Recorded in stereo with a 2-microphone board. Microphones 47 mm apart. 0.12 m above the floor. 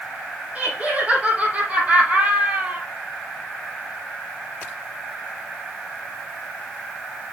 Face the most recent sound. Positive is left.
turn(degrees=-30)  # may be behind; listen again after turning